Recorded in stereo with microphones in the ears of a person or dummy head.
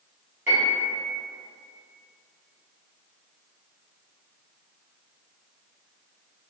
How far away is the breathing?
I don't hear breathing.